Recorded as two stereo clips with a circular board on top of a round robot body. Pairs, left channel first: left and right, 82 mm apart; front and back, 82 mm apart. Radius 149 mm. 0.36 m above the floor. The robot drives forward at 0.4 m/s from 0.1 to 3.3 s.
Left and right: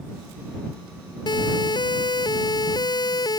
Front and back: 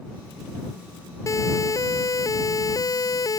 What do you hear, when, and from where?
1.3 s a siren: 55° left; by 3.4 s 50° left